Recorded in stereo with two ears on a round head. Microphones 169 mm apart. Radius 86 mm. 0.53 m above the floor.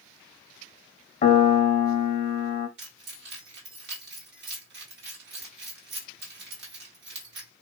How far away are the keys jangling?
About 1.2 m.